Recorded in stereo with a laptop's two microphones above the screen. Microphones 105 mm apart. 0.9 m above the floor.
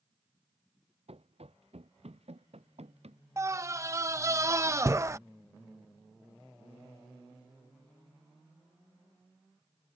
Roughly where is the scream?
Right.